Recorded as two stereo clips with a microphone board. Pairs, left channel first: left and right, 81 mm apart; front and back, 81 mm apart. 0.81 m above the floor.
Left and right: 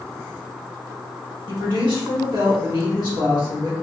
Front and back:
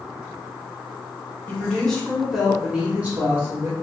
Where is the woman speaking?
75° right, 1.7 m; by 3.7 s 125° right, 1.8 m.